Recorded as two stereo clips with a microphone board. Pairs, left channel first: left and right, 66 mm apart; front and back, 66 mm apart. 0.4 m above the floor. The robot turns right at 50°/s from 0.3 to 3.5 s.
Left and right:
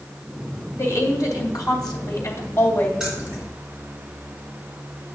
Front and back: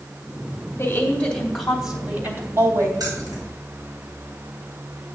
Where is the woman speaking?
50° left, 2.5 m; by 2.9 s 155° left, 2.5 m.